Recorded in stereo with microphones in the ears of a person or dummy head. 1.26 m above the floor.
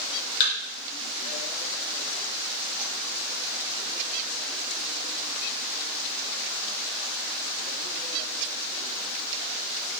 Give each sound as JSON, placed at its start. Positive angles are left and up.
{"t": 0.4, "sound": "a thud", "side_deg": 35, "distance_m": 1.9}